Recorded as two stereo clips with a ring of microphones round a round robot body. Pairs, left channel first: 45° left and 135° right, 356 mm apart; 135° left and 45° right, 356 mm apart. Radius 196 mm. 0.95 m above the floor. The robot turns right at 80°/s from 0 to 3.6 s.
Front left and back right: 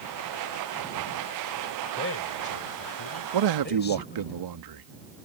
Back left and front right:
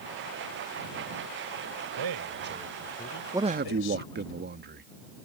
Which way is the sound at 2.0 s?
20° right.